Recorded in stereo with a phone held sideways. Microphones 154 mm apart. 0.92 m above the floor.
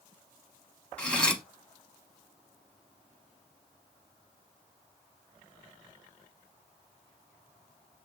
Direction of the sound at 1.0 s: 5° left (ahead or behind).